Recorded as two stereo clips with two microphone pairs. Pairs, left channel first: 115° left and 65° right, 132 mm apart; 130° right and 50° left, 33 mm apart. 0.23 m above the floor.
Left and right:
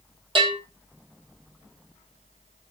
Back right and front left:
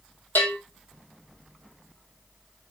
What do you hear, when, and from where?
0.3 s a bell: 115° right, 1.6 m